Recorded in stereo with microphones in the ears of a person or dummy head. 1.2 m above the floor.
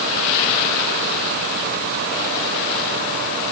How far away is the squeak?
I don't hear a squeak.